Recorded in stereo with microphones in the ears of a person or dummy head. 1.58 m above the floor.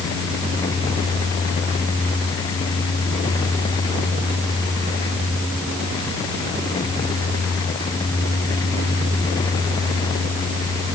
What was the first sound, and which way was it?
Only background noise.